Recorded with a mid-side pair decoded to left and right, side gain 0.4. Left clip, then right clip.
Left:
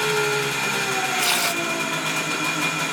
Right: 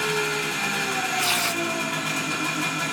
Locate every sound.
0.0 s an engine running: 40° left, 0.7 m
1.2 s tearing paper: 40° left, 0.8 m